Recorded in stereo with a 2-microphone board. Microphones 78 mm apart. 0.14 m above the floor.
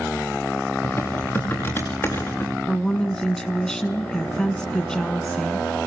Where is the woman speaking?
10° left (ahead or behind), 1.4 m.